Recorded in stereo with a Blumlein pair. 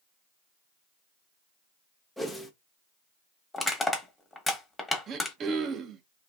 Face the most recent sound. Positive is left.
turn(degrees=-25)